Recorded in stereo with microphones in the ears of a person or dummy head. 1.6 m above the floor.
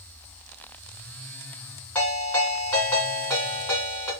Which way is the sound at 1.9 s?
15° left (ahead or behind).